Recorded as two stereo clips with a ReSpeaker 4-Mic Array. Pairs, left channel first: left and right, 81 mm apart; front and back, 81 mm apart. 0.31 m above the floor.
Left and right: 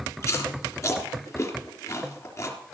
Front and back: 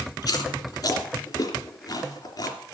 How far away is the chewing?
About 3.5 m.